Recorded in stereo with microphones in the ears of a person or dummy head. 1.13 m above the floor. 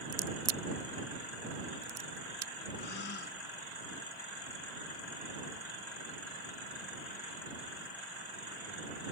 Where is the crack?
20° right (ahead or behind).